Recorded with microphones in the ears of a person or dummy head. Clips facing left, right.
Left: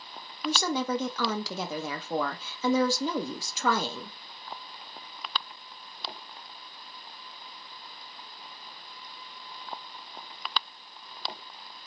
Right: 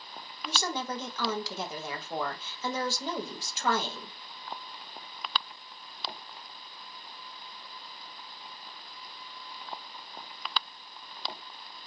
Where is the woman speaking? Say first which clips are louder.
Left 6 dB; 70° left (ahead or behind), 0.8 m.